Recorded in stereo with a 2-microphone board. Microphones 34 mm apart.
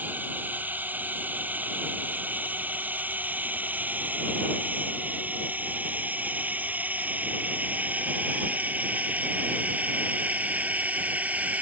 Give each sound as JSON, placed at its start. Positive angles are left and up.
{"t": 0.0, "sound": "a drone", "side_deg": -65}